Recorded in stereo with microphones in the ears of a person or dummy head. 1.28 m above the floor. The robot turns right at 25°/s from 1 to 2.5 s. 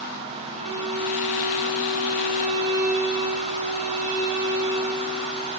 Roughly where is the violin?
Right.